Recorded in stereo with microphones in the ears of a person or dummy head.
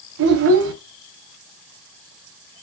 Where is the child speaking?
65° right (ahead or behind), 0.7 m.